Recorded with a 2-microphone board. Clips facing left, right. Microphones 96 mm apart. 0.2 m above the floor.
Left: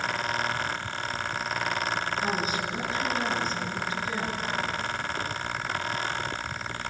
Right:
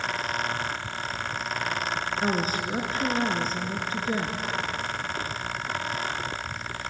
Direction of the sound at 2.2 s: 45° right (ahead or behind).